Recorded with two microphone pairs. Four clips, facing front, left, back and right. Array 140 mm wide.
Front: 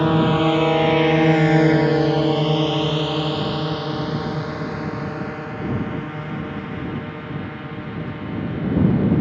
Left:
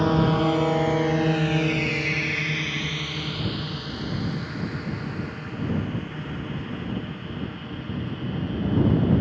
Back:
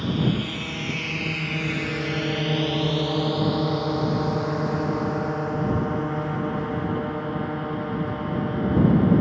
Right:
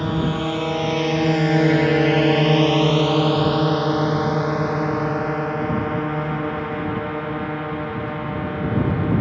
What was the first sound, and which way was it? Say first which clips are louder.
A drone: left 2 dB, front 8 dB; 20° left.